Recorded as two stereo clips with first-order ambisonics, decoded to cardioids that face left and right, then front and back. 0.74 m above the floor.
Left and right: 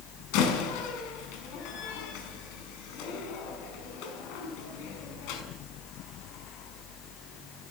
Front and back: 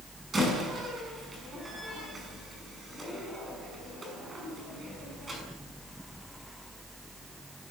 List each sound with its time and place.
0.3 s a door slam: 105° left, 6 m